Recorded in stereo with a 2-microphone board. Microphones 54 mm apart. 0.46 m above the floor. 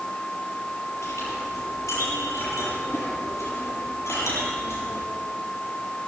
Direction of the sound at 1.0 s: 60° left (ahead or behind).